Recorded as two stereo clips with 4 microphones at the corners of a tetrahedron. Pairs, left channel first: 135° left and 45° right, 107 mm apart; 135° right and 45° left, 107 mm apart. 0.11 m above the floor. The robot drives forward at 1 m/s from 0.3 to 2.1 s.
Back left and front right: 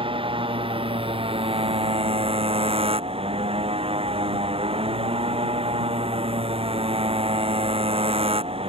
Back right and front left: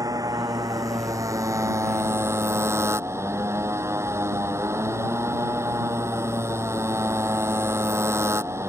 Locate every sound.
0.0 s a motorcycle: 10° right; by 8.7 s 20° right